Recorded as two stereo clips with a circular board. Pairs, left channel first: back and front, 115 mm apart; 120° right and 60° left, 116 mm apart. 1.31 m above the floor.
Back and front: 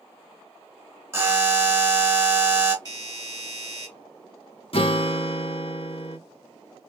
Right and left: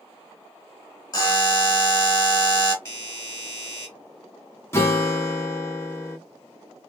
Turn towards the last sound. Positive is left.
turn(degrees=180)